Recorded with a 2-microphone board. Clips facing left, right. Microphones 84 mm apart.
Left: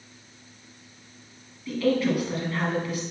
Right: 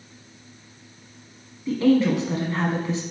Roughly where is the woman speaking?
Right.